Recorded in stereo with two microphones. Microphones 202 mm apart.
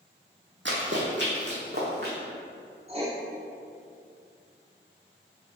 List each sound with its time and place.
0.7 s running footsteps: 70° right (ahead or behind), 1.6 m; by 2.1 s 50° right (ahead or behind), 2.5 m
2.9 s writing: 30° right (ahead or behind), 1.2 m